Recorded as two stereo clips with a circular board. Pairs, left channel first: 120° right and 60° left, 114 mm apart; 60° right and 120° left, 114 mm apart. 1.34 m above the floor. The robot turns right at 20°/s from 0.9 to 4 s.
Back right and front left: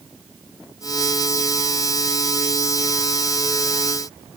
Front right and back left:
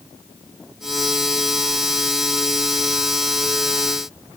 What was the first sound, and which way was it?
Only background noise.